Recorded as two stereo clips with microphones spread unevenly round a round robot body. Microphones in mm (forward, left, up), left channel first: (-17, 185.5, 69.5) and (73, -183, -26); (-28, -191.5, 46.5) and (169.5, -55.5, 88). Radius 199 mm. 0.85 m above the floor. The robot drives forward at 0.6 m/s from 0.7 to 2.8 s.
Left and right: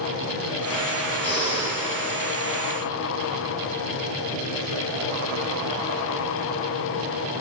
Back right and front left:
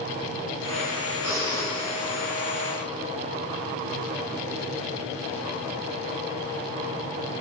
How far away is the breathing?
About 4.5 m.